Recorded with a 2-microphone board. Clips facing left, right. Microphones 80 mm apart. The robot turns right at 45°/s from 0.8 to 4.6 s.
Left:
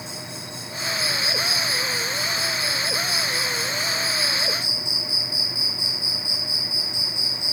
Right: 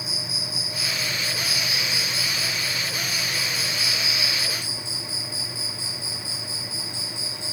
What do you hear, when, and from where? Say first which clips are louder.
0.0 s an insect: even; 5° right, 1.0 m; by 7.5 s 165° left, 1.0 m